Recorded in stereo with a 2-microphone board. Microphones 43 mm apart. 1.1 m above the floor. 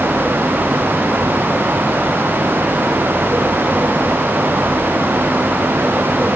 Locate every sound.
Only background noise.